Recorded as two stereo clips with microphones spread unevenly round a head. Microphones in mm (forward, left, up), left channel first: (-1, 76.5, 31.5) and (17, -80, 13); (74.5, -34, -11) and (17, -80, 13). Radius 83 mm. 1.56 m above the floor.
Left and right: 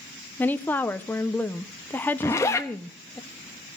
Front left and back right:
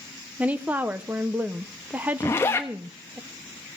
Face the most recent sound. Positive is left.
turn(degrees=105)